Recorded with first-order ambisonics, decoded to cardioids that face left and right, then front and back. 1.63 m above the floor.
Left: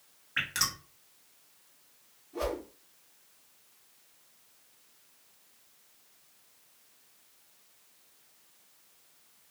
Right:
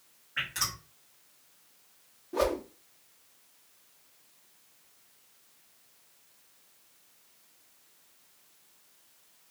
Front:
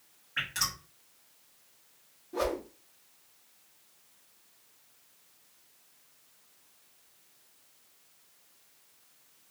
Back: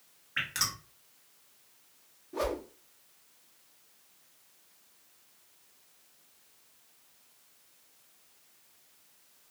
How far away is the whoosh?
About 0.6 m.